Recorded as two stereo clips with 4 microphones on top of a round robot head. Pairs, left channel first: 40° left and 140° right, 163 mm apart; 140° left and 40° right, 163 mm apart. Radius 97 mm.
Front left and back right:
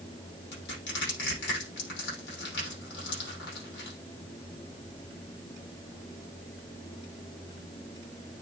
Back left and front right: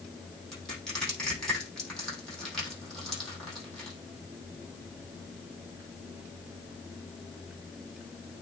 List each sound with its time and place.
0.5 s crushing: 55° left, 6 m